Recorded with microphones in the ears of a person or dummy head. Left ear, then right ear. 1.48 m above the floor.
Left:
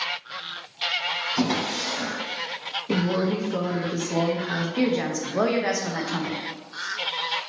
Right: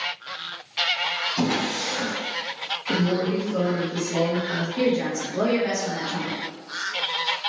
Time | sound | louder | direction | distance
1.4 | a drawer | right 1 dB | 70° left (ahead or behind) | 1.7 m
2.9 | a woman speaking | right 1 dB | 20° left (ahead or behind) | 0.6 m
4.8 | a woman speaking | right 2 dB | 35° left (ahead or behind) | 0.6 m